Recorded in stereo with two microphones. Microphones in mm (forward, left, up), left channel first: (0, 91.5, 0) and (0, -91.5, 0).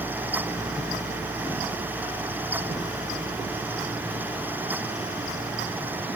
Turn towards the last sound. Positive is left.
No sound to turn to.